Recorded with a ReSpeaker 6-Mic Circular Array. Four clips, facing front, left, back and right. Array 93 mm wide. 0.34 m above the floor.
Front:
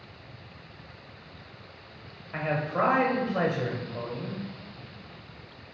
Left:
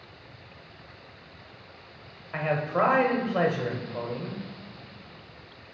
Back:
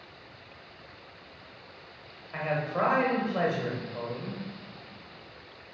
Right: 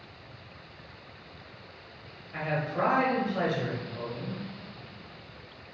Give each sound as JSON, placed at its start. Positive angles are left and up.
{"t": 2.3, "sound": "a man speaking", "azimuth_deg": 80, "distance_m": 1.5}